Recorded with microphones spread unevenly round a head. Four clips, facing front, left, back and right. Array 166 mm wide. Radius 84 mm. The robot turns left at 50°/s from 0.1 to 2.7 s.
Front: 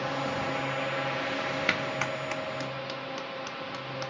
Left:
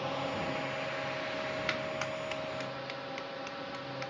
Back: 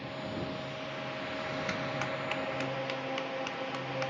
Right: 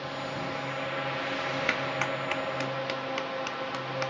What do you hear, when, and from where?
0.0 s a drone: 10° left; by 4.1 s 120° right
1.7 s a clap: 45° right; by 4.1 s 95° right